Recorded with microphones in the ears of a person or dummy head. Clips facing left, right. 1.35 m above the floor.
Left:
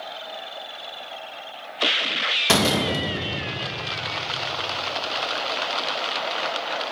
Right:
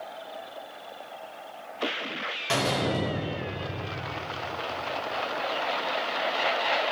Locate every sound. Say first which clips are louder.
2.5 s a door slam: left 5 dB; 80° left, 1.3 m